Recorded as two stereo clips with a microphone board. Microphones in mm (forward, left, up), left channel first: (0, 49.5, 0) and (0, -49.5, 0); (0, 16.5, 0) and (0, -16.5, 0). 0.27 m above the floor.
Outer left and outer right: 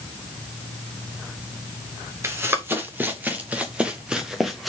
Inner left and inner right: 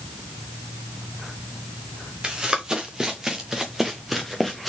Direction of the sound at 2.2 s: 25° right (ahead or behind).